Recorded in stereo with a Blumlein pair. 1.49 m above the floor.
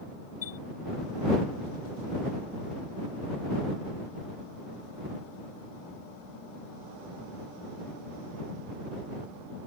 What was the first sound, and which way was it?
A chime, 60° left.